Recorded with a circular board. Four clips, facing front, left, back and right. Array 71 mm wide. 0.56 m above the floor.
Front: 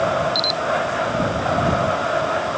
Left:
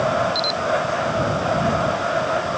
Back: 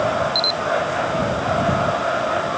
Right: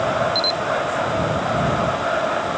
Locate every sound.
0.3 s a camera shutter: 25° left